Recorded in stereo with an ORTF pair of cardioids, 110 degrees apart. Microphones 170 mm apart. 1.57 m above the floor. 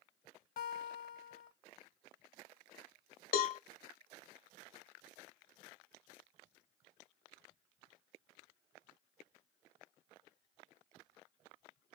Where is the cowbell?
60° left, 0.5 m.